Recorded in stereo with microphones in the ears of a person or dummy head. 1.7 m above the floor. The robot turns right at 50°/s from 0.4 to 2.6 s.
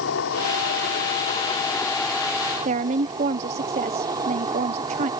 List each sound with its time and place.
0.0 s an insect: 95° left; by 5.2 s 155° right
2.6 s a woman speaking: 45° right (ahead or behind)